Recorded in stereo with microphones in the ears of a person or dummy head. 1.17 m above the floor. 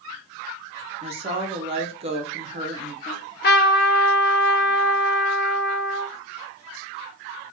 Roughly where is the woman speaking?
Right.